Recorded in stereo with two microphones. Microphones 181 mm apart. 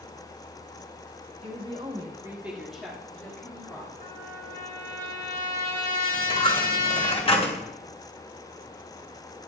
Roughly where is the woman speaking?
Right.